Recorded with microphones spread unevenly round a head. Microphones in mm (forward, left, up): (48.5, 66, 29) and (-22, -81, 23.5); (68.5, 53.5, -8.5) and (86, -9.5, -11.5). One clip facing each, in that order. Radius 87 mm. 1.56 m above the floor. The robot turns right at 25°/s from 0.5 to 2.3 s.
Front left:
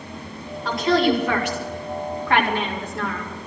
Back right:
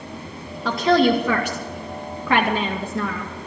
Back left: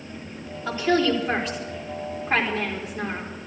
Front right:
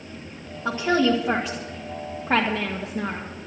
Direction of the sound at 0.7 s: 145° right.